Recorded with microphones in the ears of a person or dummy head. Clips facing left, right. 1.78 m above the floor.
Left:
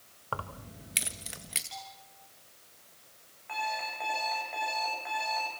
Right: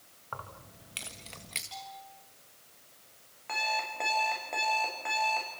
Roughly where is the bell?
Centre.